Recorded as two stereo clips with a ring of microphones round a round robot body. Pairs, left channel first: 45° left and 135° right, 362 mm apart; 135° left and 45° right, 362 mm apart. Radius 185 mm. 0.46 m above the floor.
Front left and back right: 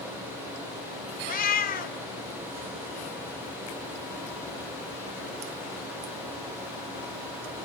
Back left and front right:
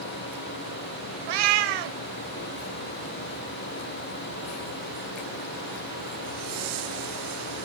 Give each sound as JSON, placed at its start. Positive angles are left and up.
{"t": 1.3, "sound": "a cat meowing", "azimuth_deg": -25, "distance_m": 1.1}